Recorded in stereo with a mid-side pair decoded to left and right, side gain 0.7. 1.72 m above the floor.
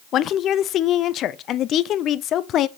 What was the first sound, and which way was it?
A woman speaking, 45° left.